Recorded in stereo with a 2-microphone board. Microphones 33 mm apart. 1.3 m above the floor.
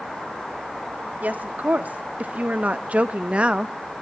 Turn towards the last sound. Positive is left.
turn(degrees=-25)  # may be behind; listen again after turning